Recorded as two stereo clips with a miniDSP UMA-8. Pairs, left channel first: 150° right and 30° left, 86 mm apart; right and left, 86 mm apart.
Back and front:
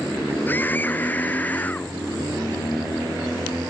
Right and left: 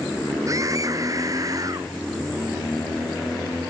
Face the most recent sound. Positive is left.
turn(degrees=135)